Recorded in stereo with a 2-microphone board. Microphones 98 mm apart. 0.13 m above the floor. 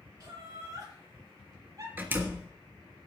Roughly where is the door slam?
Centre.